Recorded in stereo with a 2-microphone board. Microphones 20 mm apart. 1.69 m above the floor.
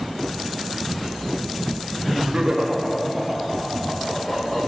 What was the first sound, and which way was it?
Laughter, 55° right (ahead or behind).